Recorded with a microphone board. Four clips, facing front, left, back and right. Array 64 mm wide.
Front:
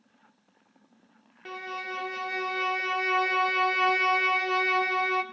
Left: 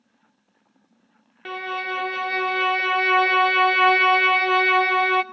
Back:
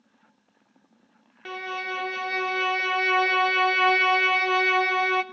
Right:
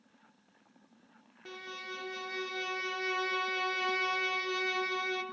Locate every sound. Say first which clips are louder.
1.4 s a violin: left 16 dB, back 4 dB; 100° left, 0.6 m